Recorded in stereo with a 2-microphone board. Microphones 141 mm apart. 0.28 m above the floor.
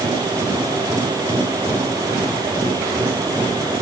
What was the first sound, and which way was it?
Only background noise.